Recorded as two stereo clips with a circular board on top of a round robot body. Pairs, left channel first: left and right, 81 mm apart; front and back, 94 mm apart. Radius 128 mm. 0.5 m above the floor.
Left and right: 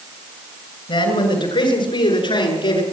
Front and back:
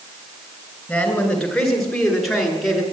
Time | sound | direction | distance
0.9 | a man speaking | 85° left | 8 m